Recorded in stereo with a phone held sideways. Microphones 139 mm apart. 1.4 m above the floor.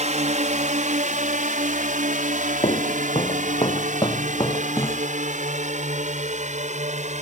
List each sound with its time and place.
0.0 s a drone: 60° right (ahead or behind)
2.6 s footsteps: 50° left (ahead or behind); by 5.1 s 20° left (ahead or behind)